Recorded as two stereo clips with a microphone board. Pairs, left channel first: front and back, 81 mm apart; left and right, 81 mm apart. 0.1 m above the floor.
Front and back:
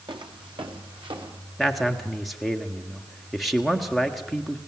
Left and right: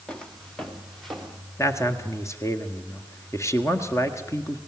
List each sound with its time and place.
0.1 s footsteps: 170° left, 2 m; by 1.4 s straight behind, 4 m
1.6 s a man speaking: 90° left, 1.5 m